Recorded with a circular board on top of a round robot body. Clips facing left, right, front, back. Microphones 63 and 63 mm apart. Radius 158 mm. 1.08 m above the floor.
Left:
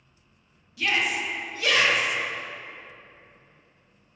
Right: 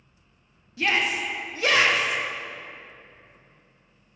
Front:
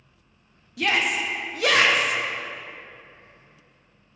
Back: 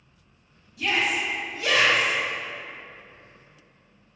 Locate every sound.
0.8 s a shout: 30° right, 0.5 m